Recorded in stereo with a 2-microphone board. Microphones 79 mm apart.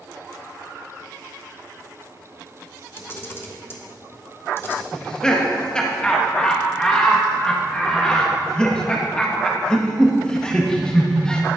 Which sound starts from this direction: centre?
Laughter, at 4.9 s.